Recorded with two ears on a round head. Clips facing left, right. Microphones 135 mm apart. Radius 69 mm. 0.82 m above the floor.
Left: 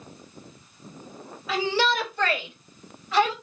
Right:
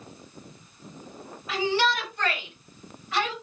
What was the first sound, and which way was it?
A shout, 65° left (ahead or behind).